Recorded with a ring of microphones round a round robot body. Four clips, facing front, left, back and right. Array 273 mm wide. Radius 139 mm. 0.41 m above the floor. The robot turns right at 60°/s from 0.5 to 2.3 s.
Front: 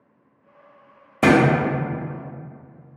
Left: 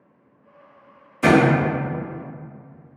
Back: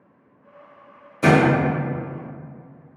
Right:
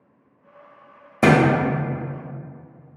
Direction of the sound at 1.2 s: 55° right.